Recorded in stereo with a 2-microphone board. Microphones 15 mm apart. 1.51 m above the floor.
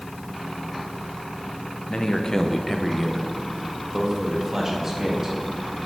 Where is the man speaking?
55° left (ahead or behind), 0.7 m; by 5.4 s 20° right (ahead or behind), 2.5 m.